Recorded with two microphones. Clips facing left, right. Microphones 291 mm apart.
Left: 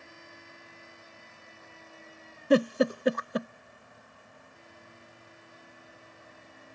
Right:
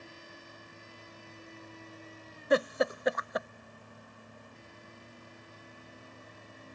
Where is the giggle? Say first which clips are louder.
Left 5 dB; 35° left (ahead or behind).